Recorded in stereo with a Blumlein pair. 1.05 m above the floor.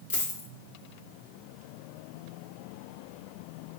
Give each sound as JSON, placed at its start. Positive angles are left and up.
{"t": 0.1, "sound": "a dropped coin", "azimuth_deg": 60, "distance_m": 1.0}